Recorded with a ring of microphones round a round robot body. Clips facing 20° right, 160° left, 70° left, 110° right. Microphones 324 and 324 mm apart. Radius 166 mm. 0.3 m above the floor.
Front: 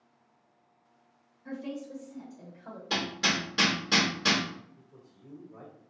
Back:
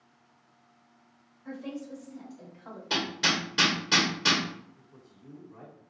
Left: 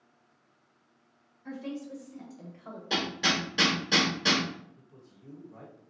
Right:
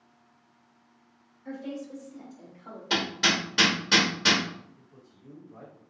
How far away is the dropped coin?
I don't hear a dropped coin.